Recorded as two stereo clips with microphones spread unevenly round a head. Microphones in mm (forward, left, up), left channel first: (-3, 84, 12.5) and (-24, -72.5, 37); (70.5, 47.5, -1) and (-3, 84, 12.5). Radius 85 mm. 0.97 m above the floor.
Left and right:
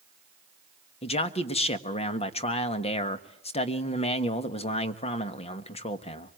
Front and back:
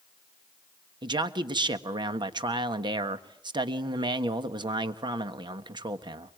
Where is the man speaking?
125° left, 1.5 m.